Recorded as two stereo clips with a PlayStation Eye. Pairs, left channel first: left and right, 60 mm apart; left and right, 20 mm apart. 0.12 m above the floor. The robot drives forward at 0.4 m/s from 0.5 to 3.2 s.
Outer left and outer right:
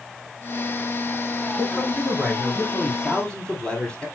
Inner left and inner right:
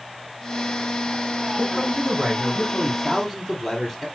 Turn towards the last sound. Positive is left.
turn(degrees=15)  # may be behind; listen again after turning